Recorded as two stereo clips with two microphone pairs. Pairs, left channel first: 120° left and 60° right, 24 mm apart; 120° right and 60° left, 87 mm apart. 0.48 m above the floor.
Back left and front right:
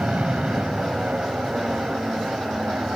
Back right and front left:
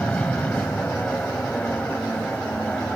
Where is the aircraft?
45° right.